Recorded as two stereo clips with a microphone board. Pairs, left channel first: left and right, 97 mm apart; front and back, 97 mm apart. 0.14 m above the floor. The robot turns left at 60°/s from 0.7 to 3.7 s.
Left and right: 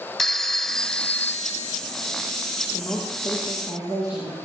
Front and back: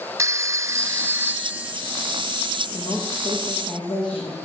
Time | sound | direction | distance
0.2 | a phone ringing | 175° left | 0.9 m
2.7 | a woman speaking | 20° left | 8 m